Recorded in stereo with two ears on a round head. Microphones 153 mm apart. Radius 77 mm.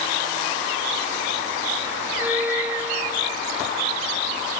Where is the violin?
10° right (ahead or behind).